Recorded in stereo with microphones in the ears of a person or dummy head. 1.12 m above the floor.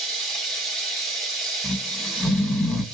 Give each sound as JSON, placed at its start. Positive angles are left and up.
{"t": 0.0, "sound": "running water", "side_deg": 0, "distance_m": 1.9}
{"t": 1.6, "sound": "snoring", "side_deg": 0, "distance_m": 2.0}